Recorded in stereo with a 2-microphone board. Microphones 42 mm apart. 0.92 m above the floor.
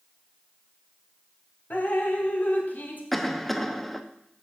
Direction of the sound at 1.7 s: 50° left (ahead or behind).